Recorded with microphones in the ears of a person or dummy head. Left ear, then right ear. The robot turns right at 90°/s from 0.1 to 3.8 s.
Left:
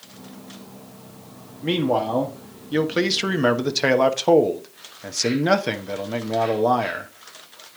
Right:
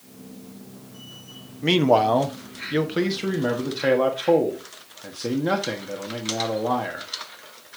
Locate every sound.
1.6 s a man speaking: 110° right, 1.0 m; by 7.1 s 90° left, 1.0 m